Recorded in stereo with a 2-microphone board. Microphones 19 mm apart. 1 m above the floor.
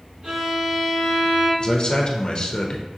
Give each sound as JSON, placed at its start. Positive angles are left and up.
{"t": 0.2, "sound": "a violin", "side_deg": -65, "distance_m": 1.8}
{"t": 1.6, "sound": "a man speaking", "side_deg": 50, "distance_m": 0.7}